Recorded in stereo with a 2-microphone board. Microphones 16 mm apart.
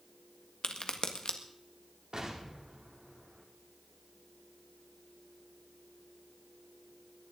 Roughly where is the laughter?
I don't hear laughter.